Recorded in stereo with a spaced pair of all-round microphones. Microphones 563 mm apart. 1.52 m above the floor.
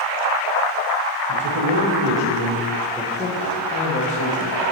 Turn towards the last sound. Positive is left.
turn(degrees=30)  # may be behind; listen again after turning